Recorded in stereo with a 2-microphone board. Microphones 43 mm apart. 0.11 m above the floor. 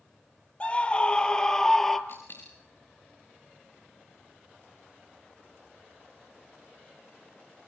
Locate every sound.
0.6 s a scream: 30° left (ahead or behind), 2.5 m; by 2.0 s 5° left (ahead or behind), 2 m
2.1 s a dropped coin: 60° left (ahead or behind), 5.5 m